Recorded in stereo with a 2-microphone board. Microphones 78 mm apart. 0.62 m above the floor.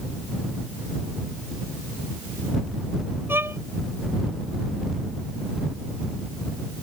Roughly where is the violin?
Right.